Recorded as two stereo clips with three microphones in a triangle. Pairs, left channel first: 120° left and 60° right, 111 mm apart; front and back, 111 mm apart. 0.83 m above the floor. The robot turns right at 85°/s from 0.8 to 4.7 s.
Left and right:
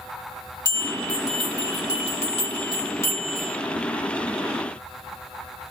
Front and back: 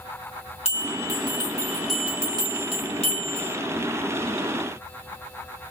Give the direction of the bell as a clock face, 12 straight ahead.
12 o'clock.